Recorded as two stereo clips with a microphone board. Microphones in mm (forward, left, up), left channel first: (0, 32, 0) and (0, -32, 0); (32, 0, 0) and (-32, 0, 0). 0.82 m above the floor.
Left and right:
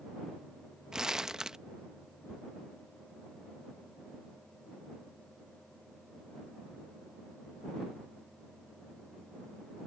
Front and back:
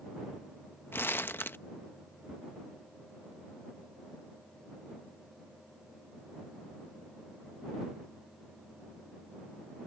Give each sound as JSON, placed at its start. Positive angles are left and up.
{"t": 0.9, "sound": "crumpling", "azimuth_deg": -20}
{"t": 2.3, "sound": "ticking", "azimuth_deg": 110}